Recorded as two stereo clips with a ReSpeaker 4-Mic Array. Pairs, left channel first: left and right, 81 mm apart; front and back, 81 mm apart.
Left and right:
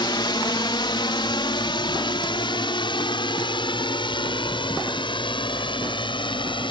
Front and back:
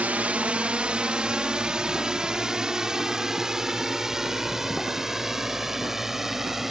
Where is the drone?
110° left; by 6.7 s 95° left.